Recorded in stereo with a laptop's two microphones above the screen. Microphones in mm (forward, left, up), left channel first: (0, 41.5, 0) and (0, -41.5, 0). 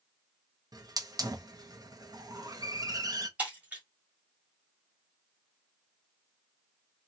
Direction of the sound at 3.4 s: 15° right (ahead or behind).